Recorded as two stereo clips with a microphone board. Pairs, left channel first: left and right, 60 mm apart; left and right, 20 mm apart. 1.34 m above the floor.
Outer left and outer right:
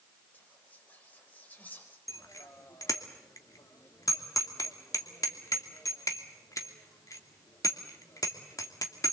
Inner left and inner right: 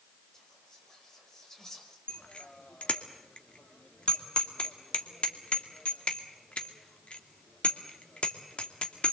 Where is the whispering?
25° left (ahead or behind), 6 m.